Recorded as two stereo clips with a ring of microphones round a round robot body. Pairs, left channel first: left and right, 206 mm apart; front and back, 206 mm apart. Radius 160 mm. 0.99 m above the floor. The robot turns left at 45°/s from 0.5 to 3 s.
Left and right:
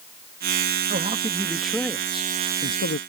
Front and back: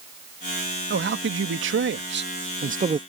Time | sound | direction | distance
0.9 | a man speaking | 145° right | ?